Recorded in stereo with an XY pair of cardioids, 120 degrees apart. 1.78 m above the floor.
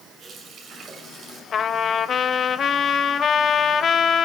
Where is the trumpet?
45° left, 1.1 m.